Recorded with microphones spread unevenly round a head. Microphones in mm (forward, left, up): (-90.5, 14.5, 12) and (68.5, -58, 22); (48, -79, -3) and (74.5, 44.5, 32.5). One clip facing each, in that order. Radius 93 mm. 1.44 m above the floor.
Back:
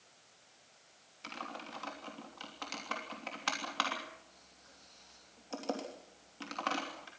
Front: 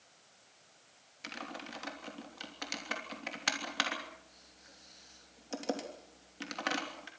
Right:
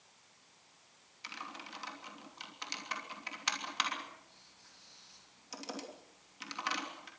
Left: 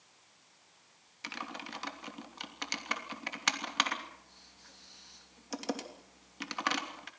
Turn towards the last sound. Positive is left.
turn(degrees=50)